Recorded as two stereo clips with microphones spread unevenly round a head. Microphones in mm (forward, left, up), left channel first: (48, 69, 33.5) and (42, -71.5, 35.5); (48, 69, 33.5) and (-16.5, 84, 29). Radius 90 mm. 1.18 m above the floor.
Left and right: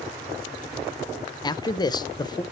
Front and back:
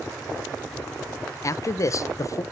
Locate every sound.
1.4 s a man speaking: 30° left, 0.6 m